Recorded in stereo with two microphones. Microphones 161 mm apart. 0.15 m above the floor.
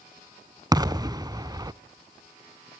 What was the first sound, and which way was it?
An explosion, 25° right (ahead or behind).